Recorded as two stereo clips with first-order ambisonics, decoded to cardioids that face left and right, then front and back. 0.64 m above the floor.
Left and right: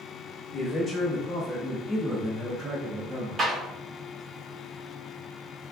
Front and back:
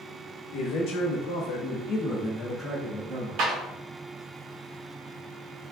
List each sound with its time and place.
0.5 s a man speaking: 20° left, 1.1 m; by 3.4 s 130° right, 0.7 m
3.4 s a clap: 155° right, 0.8 m